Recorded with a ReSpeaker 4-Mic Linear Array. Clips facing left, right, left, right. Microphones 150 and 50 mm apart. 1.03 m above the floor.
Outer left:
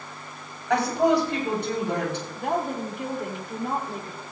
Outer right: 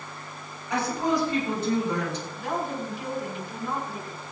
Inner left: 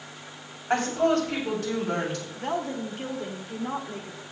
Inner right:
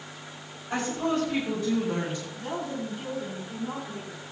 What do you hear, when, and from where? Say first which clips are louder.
0.7 s a woman speaking: outer left 5 dB, inner left 5 dB; 75° left (ahead or behind), 6.5 m; by 2.2 s 65° left (ahead or behind), 7 m
2.3 s a woman speaking: outer left 4 dB, inner left 5 dB; 55° left (ahead or behind), 2.5 m